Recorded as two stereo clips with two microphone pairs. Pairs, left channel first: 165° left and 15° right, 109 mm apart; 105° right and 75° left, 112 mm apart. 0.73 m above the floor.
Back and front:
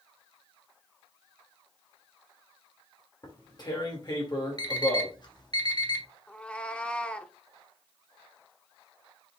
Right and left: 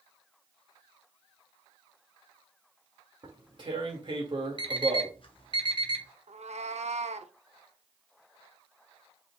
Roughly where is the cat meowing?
Left.